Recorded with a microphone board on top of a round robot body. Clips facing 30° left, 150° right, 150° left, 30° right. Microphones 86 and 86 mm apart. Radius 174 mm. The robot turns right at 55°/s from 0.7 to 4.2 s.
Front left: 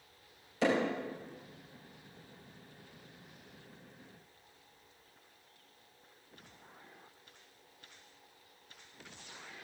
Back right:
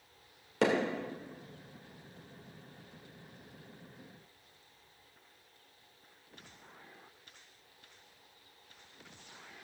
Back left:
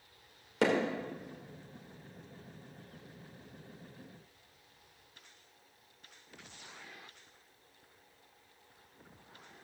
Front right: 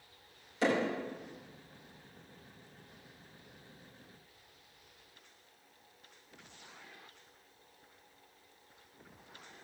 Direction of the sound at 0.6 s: Straight behind.